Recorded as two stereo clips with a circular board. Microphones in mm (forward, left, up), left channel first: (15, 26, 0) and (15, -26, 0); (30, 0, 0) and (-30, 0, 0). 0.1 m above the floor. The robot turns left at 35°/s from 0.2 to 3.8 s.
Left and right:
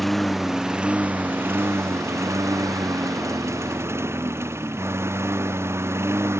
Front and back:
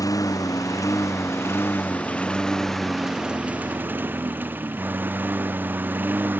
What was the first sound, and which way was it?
A lawn mower, straight ahead.